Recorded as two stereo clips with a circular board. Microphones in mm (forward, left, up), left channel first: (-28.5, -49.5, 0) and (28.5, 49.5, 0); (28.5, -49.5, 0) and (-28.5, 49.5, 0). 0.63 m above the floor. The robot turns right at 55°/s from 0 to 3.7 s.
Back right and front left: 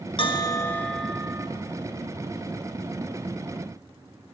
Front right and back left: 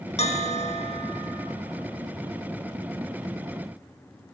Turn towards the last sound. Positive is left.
turn(degrees=115)